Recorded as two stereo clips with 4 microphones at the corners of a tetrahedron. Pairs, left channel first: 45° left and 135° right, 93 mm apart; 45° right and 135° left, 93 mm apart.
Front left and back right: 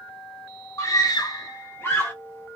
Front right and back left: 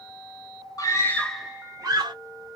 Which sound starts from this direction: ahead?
A scream, at 0.8 s.